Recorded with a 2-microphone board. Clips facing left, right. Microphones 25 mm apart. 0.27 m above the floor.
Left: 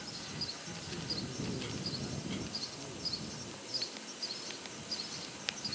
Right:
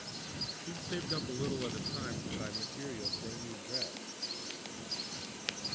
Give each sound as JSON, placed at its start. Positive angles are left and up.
{"t": 0.6, "sound": "a man speaking", "side_deg": -50}